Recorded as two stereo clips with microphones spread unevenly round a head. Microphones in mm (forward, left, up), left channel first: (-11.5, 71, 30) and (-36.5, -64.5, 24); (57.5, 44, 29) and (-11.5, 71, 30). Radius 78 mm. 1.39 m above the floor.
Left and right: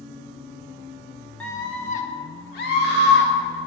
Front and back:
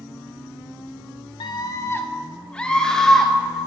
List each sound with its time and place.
1.4 s a scream: 5° right, 1.0 m; by 3.6 s 65° left, 3.5 m